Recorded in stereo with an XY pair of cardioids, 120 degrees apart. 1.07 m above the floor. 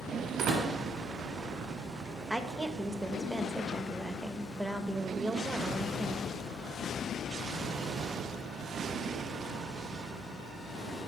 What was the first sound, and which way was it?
A door slam, 70° right.